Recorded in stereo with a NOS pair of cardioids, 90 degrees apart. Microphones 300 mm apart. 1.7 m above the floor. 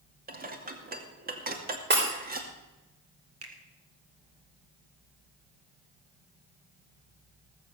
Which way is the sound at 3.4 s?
50° right.